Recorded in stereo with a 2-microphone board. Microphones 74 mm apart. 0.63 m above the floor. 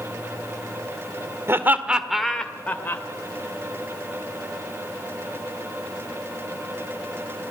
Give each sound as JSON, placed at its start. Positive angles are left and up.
{"t": 1.5, "sound": "laughter", "side_deg": -35, "distance_m": 1.8}